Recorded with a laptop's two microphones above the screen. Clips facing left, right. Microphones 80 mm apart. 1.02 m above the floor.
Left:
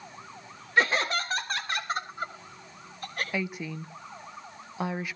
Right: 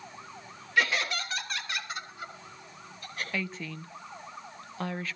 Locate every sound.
0.8 s laughter: 35° left (ahead or behind), 1.7 m; by 3.2 s 50° left (ahead or behind), 5.5 m
3.3 s a woman speaking: 15° left (ahead or behind), 0.9 m